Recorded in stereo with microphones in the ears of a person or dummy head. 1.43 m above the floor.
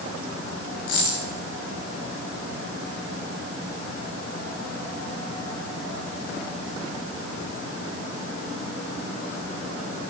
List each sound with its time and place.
0.9 s a dropped coin: 80° left, 7 m